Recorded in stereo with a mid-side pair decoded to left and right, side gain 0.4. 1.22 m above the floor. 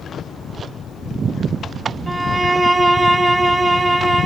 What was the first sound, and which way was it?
A violin, 30° right.